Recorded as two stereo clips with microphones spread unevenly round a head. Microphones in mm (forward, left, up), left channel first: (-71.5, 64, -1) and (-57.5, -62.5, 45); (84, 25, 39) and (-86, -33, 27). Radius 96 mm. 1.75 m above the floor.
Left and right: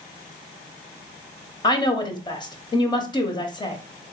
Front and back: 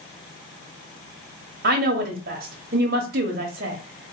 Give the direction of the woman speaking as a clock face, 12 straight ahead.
7 o'clock.